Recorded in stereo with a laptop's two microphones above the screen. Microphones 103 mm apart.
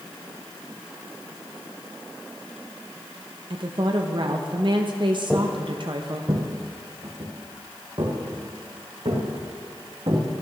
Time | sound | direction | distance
3.5 | a woman speaking | 50° right (ahead or behind) | 0.8 m
5.3 | footsteps | 5° right (ahead or behind) | 1.0 m